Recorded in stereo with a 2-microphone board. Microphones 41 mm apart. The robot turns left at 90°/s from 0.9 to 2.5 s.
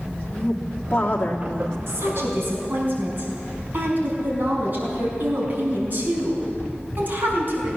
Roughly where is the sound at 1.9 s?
Right.